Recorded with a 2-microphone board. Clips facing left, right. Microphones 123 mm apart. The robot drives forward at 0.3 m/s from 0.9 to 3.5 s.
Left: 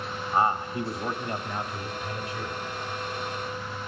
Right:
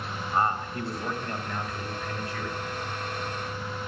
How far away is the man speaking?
About 1.1 m.